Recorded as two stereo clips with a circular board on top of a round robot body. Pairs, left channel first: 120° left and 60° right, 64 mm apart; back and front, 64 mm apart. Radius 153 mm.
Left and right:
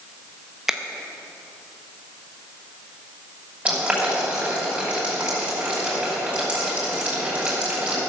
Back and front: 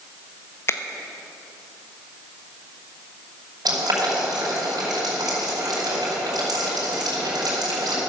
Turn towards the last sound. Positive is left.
turn(degrees=15)